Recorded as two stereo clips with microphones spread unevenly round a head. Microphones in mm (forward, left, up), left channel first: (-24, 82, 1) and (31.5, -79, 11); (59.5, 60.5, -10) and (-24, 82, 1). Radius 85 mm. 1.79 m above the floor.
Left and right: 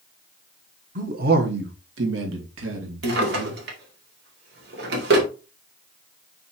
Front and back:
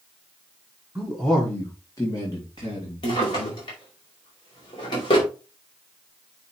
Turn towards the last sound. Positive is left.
turn(degrees=-60)